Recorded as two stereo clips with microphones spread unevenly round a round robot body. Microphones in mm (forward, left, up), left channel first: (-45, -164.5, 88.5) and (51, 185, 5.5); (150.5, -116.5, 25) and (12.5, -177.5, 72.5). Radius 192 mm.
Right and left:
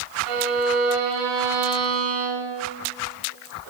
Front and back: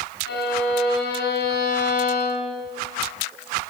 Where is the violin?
40° left, 7 m.